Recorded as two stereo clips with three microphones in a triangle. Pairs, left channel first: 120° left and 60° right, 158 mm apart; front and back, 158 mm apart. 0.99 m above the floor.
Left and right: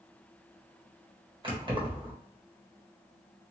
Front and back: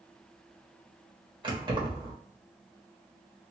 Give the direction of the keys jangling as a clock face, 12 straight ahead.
4 o'clock.